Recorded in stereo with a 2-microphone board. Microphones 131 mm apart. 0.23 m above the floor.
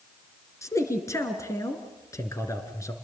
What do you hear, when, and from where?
0.6 s a man speaking: 25° left (ahead or behind), 3 m